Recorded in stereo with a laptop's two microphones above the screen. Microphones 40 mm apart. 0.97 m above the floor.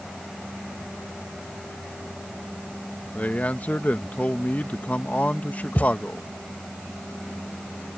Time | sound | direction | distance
3.1 | a man speaking | 40° left (ahead or behind) | ?
5.8 | a thud | 45° left (ahead or behind) | ?